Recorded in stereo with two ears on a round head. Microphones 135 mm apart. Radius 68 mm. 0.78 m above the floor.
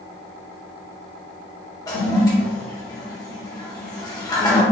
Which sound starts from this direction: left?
A toilet flushing, at 1.9 s.